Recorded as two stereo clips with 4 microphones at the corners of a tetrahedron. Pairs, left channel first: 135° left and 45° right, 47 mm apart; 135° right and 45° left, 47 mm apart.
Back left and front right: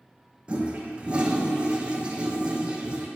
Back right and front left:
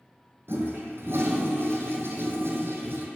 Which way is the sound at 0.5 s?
20° left.